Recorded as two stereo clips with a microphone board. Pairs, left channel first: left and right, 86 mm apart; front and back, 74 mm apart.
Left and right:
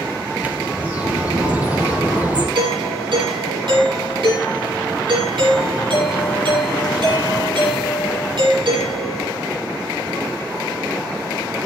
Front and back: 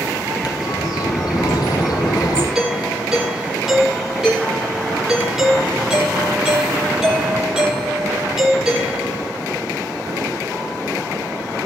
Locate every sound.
0.4 s a bird: 20° right, 3.5 m
2.5 s a doorbell: 95° right, 6 m